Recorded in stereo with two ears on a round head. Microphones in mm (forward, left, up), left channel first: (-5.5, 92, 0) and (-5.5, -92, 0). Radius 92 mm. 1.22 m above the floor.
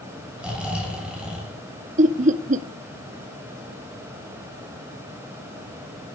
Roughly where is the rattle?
No rattle in this recording.